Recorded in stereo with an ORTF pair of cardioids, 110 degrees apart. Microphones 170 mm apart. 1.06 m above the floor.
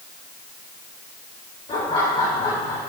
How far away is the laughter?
About 3 m.